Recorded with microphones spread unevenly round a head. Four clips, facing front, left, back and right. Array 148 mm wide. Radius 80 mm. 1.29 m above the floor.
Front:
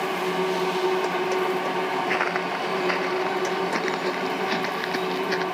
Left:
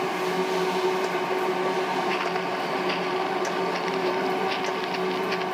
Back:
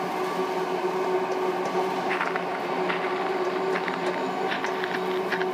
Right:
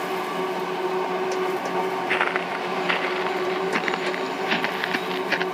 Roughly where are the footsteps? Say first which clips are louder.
Right 2 dB, front 2 dB; ahead right.